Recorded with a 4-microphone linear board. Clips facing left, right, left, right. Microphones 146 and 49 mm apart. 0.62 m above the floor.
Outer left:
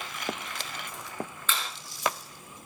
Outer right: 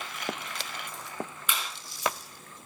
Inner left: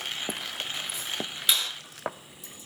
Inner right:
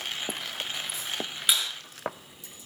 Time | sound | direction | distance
1.5 | a clap | 15° right (ahead or behind) | 8.5 m